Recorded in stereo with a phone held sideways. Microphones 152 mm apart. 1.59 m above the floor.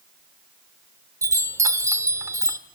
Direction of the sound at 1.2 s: 20° right (ahead or behind).